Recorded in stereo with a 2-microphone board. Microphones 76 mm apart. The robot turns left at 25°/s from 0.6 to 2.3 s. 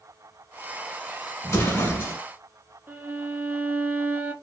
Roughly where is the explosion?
Left.